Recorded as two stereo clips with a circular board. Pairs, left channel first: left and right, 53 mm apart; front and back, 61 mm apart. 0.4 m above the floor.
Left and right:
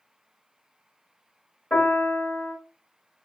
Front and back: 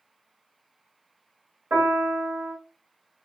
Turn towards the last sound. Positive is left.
turn(degrees=145)